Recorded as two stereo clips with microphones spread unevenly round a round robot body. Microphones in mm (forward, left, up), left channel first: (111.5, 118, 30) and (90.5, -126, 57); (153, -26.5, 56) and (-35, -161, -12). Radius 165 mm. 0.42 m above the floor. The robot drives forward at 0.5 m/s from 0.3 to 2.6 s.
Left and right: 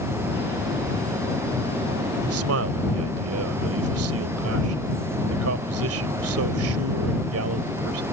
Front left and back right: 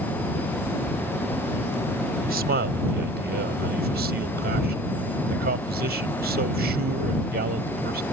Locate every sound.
2.2 s a man speaking: 115° right; by 8.0 s 120° right